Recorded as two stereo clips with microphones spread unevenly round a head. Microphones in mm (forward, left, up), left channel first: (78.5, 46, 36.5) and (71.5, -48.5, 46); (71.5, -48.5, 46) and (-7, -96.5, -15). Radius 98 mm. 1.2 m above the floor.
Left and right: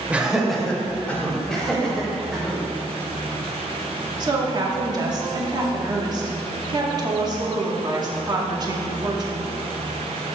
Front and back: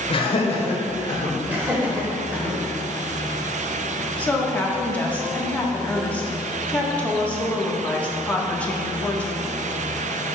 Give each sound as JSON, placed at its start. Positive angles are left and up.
{"t": 0.1, "sound": "laughter", "azimuth_deg": -15, "distance_m": 1.2}
{"t": 1.5, "sound": "laughter", "azimuth_deg": 165, "distance_m": 1.1}
{"t": 4.2, "sound": "a woman speaking", "azimuth_deg": -45, "distance_m": 1.2}